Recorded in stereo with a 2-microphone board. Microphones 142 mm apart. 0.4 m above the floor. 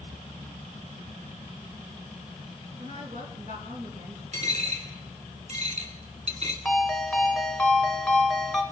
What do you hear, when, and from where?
2.8 s a woman speaking: 70° right (ahead or behind), 3 m
4.3 s a dropped coin: 50° right (ahead or behind), 2.5 m
6.7 s a ringtone: 5° left (ahead or behind), 1.2 m